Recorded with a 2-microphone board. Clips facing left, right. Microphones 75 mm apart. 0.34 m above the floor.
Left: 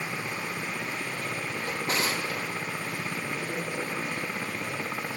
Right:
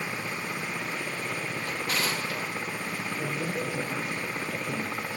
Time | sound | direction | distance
1.6 | a drawer | 25° left (ahead or behind) | 3.5 m
3.2 | a man speaking | 80° right | 8.5 m